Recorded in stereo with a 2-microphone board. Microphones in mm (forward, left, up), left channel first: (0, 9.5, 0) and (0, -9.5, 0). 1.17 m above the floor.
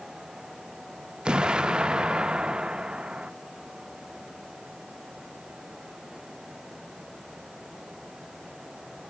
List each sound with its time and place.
1.2 s an explosion: 50° right (ahead or behind), 0.6 m